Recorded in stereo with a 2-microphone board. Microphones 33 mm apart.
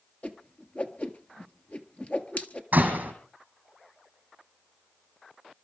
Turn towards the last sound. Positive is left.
turn(degrees=-55)  # may be behind; listen again after turning